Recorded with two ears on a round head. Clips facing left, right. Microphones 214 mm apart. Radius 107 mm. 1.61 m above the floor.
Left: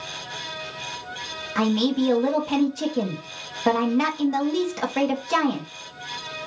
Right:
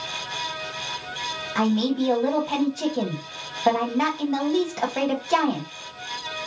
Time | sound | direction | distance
1.6 | a man speaking | 10° left (ahead or behind) | 1.3 m